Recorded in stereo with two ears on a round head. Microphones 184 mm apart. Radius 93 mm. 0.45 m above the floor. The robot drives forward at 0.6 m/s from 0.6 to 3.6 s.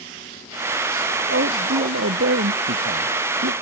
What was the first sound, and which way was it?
A man speaking, 50° right (ahead or behind).